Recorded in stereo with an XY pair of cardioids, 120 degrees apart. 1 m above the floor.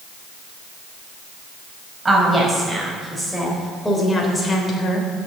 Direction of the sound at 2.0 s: 25° right.